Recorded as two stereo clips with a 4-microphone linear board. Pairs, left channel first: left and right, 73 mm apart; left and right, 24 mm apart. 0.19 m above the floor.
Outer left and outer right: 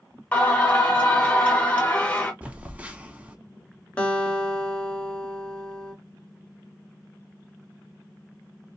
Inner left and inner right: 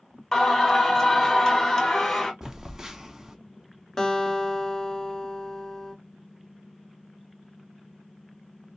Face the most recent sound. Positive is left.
turn(degrees=20)  # may be behind; listen again after turning